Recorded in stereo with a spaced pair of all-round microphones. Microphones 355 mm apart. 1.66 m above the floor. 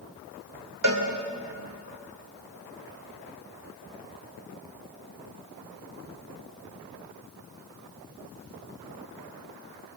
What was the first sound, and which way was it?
A cowbell, 60° right (ahead or behind).